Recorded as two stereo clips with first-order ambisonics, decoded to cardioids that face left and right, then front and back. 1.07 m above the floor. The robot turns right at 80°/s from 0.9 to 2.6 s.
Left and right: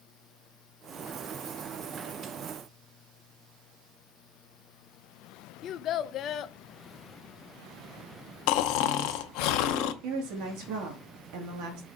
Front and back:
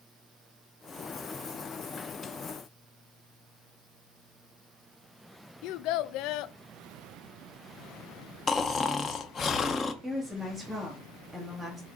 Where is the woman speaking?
95° right, 2.5 m.